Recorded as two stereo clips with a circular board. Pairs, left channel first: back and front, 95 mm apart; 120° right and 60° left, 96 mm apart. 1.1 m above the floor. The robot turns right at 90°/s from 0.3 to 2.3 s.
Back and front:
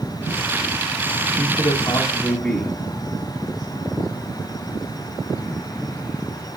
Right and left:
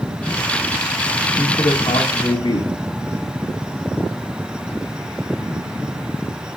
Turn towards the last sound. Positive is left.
turn(degrees=-100)